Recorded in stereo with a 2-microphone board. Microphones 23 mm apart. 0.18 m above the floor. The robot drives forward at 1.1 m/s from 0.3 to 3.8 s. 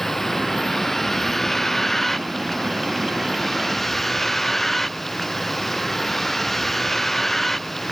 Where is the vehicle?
10° left (ahead or behind).